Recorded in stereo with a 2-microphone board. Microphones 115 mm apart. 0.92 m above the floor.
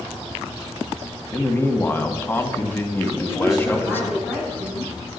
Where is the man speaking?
20° left (ahead or behind), 1.6 m.